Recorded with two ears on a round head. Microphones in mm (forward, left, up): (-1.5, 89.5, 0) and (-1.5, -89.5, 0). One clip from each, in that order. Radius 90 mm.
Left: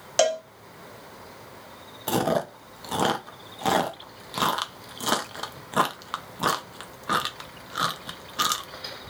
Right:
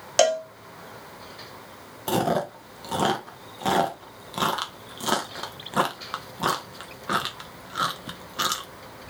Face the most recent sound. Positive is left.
turn(degrees=10)  # may be behind; listen again after turning